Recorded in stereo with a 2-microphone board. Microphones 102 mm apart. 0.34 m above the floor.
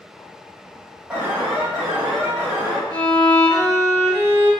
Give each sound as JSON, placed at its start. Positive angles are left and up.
{"t": 1.1, "sound": "an alarm", "side_deg": -10, "distance_m": 1.3}
{"t": 2.9, "sound": "a violin", "side_deg": 35, "distance_m": 1.2}